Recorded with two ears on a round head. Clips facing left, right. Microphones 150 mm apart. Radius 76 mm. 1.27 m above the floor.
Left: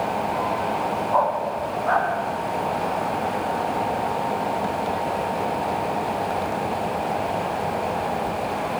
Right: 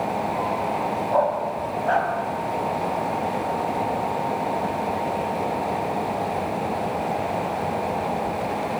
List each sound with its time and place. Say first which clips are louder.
1.1 s a dog barking: right 1 dB; 25° right (ahead or behind), 4 m